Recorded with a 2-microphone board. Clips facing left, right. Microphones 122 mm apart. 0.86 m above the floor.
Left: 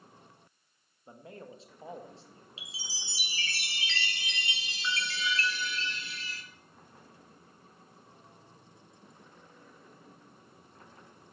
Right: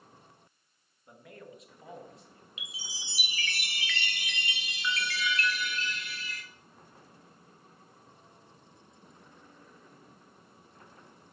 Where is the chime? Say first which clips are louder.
Right 1 dB; 30° left (ahead or behind), 1.0 m.